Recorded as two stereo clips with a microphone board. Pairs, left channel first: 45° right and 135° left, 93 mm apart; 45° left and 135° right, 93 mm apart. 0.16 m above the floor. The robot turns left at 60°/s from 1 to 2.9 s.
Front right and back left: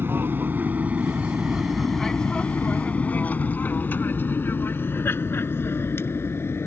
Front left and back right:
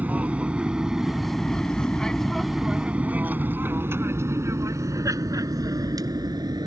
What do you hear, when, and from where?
0.0 s an aircraft: 170° left; by 6.7 s 105° right